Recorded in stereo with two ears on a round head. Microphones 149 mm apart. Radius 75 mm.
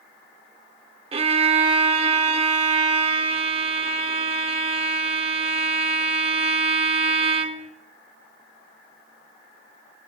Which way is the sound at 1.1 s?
35° right (ahead or behind).